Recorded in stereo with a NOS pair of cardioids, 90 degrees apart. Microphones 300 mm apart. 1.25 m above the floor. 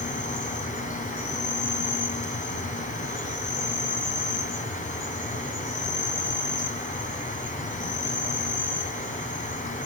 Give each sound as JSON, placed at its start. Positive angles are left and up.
{"t": 0.0, "sound": "an insect", "azimuth_deg": 25, "distance_m": 3.0}